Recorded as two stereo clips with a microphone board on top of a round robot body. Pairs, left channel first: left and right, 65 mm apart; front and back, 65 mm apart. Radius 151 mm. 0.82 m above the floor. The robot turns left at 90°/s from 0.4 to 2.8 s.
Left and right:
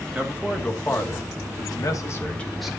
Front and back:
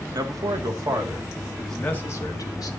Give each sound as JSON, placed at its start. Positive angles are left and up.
{"t": 0.1, "sound": "a man speaking", "azimuth_deg": -160, "distance_m": 2.5}